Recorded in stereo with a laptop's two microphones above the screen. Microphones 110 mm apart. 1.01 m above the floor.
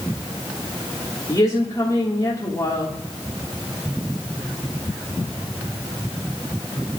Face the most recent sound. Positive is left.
turn(degrees=35)  # may be behind; listen again after turning